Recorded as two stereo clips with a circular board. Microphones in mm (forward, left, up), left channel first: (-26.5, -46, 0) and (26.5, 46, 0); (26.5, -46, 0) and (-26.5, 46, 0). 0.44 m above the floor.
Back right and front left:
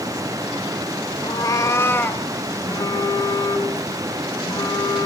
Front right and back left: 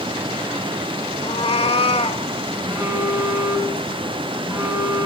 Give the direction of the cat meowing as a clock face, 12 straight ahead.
3 o'clock.